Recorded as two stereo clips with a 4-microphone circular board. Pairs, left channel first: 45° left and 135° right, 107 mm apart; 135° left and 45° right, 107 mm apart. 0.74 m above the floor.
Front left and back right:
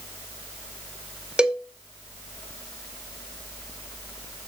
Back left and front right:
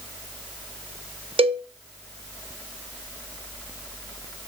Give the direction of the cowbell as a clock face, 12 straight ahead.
2 o'clock.